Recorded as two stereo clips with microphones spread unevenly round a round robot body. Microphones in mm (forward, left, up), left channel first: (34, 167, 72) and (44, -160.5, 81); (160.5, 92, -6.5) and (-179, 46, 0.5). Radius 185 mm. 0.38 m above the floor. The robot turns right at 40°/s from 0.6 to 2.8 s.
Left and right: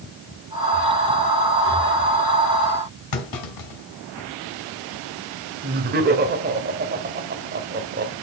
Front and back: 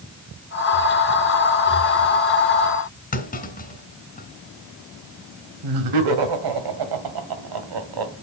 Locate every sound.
3.1 s a clunk: 75° left, 2.5 m
5.6 s laughter: 150° right, 1.9 m